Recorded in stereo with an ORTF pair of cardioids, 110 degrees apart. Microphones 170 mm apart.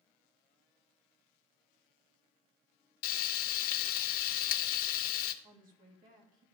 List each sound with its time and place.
3.0 s frying: 65° left, 0.7 m
5.4 s a woman speaking: 50° right, 2.5 m